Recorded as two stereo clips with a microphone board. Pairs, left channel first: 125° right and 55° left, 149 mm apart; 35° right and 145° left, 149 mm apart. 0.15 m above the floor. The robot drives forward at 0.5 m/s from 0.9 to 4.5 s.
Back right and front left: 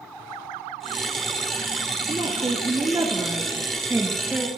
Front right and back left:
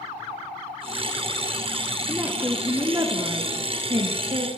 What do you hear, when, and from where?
2.1 s a woman speaking: 75° left, 1.8 m; by 4.5 s 130° left, 2.0 m